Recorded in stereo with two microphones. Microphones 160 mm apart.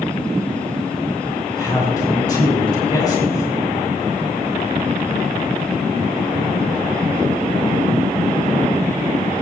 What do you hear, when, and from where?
1.5 s a man speaking: 25° left (ahead or behind), 3.5 m